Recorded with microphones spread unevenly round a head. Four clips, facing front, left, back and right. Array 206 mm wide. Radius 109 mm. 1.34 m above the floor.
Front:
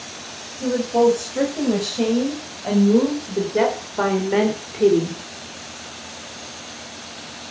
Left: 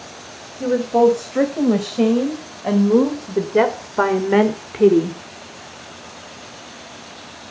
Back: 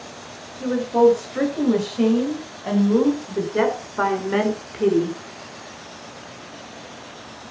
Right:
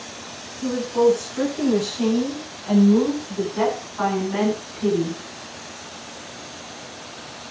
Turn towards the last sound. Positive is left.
turn(degrees=80)